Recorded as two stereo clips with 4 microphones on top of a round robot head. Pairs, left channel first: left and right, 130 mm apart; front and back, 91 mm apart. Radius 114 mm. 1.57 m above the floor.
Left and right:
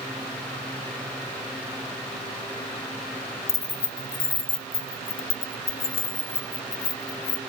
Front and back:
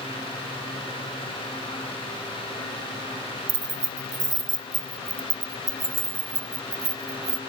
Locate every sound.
3.5 s keys jangling: 150° left; by 7.4 s 125° left